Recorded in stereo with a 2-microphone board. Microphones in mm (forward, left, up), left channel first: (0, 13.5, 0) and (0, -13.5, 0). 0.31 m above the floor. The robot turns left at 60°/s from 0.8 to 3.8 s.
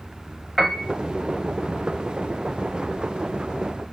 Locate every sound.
0.6 s a piano: 10° right (ahead or behind), 0.9 m; by 0.9 s 5° right (ahead or behind), 0.9 m